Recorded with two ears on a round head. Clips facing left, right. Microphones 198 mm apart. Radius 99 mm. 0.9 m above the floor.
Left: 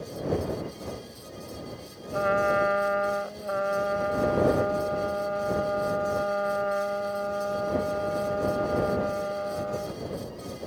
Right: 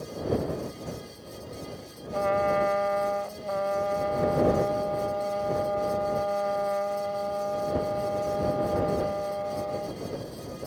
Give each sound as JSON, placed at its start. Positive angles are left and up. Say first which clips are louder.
{"t": 2.1, "sound": "a trumpet", "louder": "even", "side_deg": 10}